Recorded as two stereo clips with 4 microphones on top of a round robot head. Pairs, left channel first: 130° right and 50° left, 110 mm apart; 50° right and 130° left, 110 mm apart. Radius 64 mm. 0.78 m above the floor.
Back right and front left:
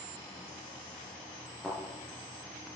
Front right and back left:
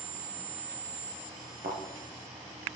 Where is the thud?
140° left, 3.5 m.